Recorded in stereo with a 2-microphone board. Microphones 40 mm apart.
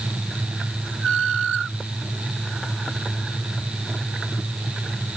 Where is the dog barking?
No dog barking in this recording.